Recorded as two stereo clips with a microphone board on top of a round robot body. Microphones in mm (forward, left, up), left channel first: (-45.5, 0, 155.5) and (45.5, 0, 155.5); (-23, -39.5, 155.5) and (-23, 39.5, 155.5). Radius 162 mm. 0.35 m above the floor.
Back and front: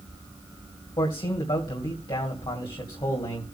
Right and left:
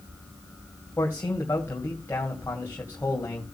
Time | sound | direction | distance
1.0 | a man speaking | 150° right | 2.5 m